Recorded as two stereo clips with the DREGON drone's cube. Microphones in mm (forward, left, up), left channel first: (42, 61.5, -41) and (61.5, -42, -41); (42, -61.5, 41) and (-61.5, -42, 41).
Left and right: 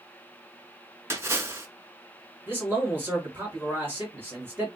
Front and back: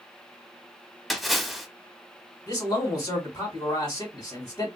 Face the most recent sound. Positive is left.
turn(degrees=-20)